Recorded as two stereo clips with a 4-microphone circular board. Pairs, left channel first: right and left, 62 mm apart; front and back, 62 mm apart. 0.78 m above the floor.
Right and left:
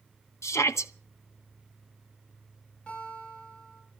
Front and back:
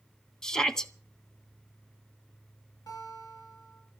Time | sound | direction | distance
0.4 | a shout | 75° right | 1.3 m
2.9 | a guitar | 15° right | 8 m